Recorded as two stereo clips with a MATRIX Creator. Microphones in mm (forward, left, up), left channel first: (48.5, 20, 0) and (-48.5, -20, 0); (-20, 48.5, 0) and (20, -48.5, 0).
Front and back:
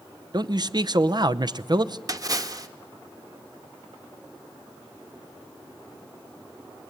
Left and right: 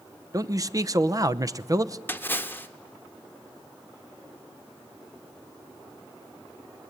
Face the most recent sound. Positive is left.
turn(degrees=170)